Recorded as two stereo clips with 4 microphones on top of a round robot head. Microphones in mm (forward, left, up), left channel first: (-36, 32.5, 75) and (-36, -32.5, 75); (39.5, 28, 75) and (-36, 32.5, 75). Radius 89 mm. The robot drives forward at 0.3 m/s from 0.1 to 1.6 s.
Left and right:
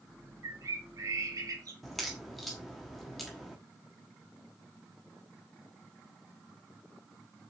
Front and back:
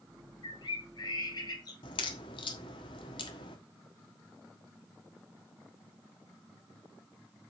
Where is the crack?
Straight ahead, 1.3 m.